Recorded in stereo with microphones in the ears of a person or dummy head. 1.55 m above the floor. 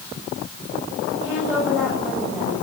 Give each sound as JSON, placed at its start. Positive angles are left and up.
{"t": 1.2, "sound": "a woman speaking", "side_deg": -5, "distance_m": 7.5}